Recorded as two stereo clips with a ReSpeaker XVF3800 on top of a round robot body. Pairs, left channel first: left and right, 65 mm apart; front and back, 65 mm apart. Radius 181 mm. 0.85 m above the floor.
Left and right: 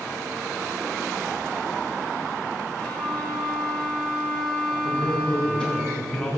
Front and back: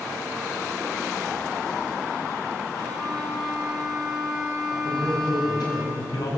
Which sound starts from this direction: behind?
A violin, at 2.8 s.